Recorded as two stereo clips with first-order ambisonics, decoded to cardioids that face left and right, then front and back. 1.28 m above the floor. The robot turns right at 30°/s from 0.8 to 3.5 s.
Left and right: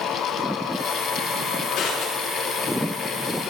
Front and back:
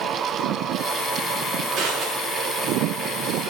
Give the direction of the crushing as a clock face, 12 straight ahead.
8 o'clock.